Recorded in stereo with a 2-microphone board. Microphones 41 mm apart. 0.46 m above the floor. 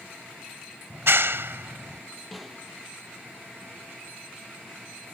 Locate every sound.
0.9 s a clap: 70° right (ahead or behind)
2.3 s a snare drum: centre (ahead or behind)